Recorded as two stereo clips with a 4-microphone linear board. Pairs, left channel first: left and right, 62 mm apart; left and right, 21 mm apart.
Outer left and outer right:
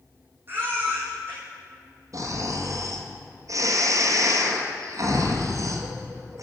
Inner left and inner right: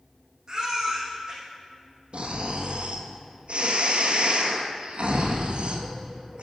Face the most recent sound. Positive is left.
turn(degrees=-60)  # may be behind; listen again after turning